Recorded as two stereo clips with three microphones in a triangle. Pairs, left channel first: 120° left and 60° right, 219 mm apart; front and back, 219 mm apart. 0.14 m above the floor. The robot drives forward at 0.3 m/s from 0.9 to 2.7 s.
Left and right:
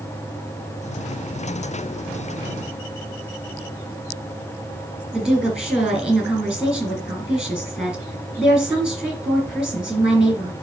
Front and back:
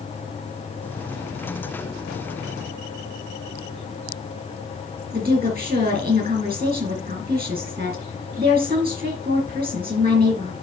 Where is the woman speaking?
145° right, 3 m.